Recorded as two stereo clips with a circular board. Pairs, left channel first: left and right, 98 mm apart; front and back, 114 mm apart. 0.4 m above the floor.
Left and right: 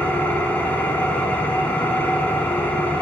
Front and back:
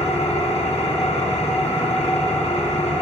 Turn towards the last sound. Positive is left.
turn(degrees=15)